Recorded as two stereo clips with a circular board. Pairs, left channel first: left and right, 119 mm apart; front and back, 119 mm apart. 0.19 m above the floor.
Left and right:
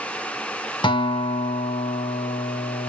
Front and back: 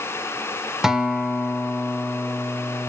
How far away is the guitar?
About 0.6 m.